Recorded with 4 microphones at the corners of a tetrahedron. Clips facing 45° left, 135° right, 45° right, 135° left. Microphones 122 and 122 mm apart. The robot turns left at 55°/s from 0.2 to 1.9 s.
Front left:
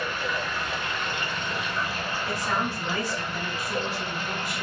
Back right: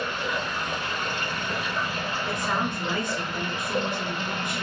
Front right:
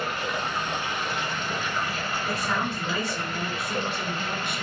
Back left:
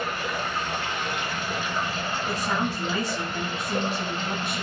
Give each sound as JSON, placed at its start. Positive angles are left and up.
{"t": 0.0, "sound": "running water", "azimuth_deg": -80, "distance_m": 1.4}
{"t": 2.3, "sound": "a woman speaking", "azimuth_deg": 165, "distance_m": 2.0}